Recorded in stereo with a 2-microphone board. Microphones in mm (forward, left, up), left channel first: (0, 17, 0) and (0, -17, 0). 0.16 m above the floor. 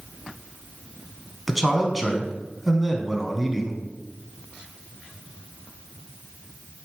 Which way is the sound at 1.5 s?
Centre (ahead or behind).